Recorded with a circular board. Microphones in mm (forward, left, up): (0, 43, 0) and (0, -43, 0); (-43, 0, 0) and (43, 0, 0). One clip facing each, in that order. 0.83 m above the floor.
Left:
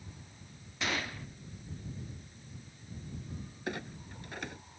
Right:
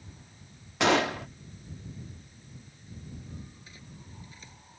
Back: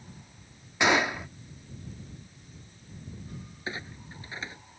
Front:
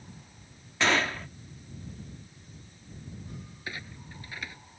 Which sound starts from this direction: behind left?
A clunk, at 3.7 s.